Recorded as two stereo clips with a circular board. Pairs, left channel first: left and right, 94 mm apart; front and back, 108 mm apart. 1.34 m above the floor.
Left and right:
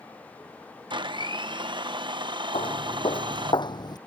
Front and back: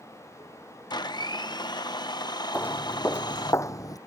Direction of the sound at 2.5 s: 75° left.